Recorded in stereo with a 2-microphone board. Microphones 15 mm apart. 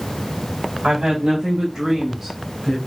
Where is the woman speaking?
60° right (ahead or behind), 2.5 m; by 2.8 s centre (ahead or behind), 3 m.